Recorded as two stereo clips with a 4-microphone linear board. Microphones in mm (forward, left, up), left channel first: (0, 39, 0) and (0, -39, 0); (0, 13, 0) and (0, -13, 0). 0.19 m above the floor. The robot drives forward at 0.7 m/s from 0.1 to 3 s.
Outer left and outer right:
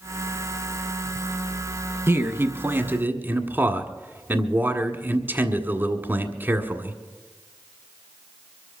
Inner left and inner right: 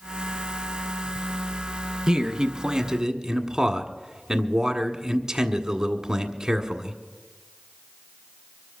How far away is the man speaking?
About 1.2 m.